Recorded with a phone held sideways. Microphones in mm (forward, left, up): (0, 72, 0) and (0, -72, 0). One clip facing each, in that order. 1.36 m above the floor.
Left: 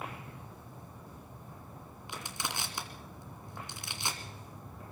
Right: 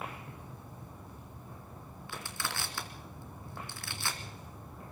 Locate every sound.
2.1 s crushing: 20° left (ahead or behind), 2.5 m